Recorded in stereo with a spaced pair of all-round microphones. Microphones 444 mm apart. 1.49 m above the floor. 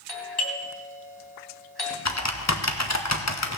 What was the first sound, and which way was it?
A doorbell, 55° left (ahead or behind).